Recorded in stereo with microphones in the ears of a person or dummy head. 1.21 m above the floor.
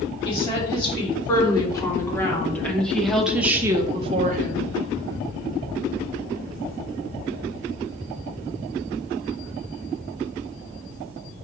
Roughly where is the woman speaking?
Left.